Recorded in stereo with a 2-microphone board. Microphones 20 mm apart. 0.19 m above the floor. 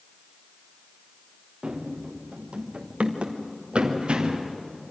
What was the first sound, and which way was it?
Running footsteps, 50° right (ahead or behind).